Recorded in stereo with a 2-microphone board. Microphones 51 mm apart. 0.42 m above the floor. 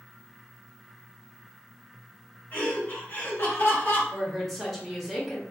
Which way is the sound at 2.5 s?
40° left (ahead or behind).